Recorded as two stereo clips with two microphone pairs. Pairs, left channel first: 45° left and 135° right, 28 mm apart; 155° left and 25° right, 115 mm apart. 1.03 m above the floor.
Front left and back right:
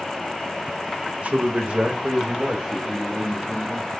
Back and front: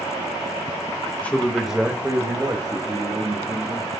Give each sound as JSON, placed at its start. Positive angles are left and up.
{"t": 1.2, "sound": "a man speaking", "azimuth_deg": -125, "distance_m": 1.5}